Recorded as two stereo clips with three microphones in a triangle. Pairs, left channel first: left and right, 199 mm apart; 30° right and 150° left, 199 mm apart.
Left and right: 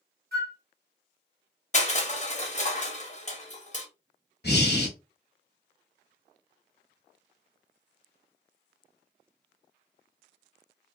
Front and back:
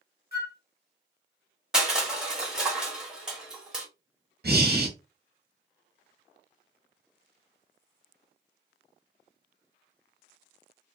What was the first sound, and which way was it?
A flute, 60° right.